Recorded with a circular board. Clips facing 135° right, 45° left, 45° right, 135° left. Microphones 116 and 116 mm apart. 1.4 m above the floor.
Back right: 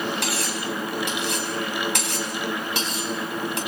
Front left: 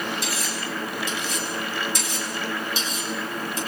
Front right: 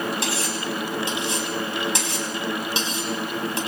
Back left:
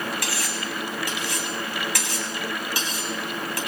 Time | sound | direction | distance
0.2 | cutlery clinking | 110° right | 6 m